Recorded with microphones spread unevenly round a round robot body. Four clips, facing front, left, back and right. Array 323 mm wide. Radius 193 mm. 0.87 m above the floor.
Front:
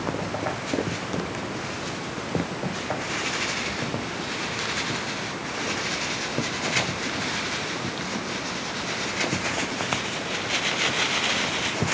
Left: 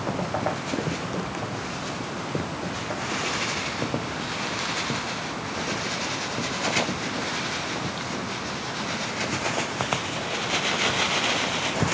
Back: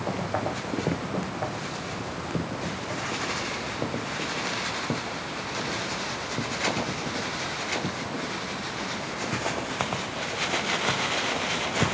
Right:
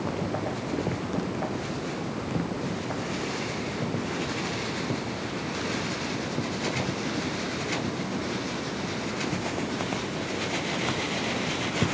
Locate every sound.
Only background noise.